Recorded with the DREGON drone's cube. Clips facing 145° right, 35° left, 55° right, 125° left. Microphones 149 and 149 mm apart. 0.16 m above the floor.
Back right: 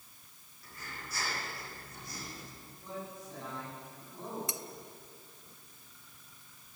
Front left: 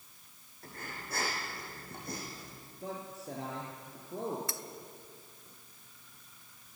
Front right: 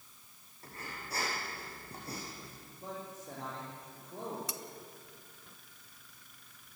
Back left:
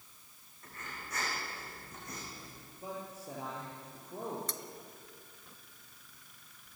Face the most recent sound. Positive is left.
turn(degrees=-115)